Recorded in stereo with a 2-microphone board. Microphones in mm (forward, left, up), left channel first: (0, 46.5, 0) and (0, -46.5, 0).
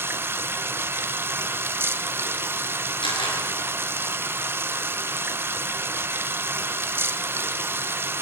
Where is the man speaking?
No man speaking in this recording.